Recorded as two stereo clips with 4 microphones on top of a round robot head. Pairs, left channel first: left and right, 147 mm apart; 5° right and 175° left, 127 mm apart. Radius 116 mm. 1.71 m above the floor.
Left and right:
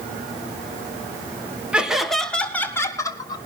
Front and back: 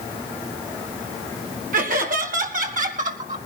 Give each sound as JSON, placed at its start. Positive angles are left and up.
{"t": 1.7, "sound": "laughter", "azimuth_deg": -175, "distance_m": 3.0}